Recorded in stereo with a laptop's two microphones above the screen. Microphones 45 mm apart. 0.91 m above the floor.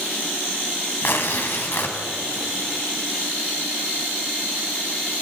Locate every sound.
1.0 s tearing paper: 60° left (ahead or behind), 2.5 m